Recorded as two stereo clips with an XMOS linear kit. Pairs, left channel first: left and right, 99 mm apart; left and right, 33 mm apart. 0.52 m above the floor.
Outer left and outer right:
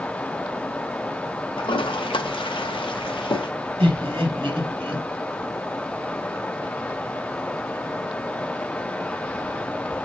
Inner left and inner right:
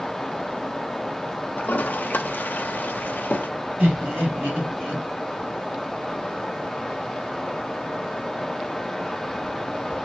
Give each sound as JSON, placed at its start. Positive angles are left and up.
{"t": 1.6, "sound": "a toilet flushing", "side_deg": 65, "distance_m": 0.7}
{"t": 3.8, "sound": "laughter", "side_deg": -65, "distance_m": 2.5}